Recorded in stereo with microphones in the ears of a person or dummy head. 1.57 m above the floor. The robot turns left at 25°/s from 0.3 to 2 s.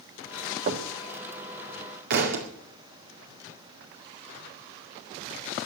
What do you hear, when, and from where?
0.7 s knocking: 40° right (ahead or behind), 1.5 m; by 0.9 s 35° right (ahead or behind), 1.5 m
2.1 s a thud: 50° right (ahead or behind), 2 m